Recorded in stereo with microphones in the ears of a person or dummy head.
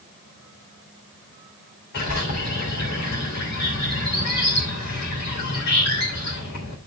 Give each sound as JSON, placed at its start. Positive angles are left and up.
{"t": 1.9, "sound": "a bird", "side_deg": 55, "distance_m": 3.0}